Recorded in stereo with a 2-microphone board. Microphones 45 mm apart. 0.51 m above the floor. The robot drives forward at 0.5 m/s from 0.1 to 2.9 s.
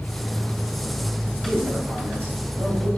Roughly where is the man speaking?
Right.